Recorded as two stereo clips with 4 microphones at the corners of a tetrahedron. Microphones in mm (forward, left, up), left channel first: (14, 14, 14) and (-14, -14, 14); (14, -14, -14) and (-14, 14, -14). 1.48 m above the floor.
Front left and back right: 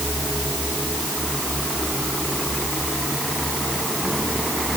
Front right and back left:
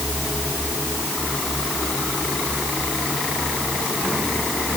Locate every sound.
Only background noise.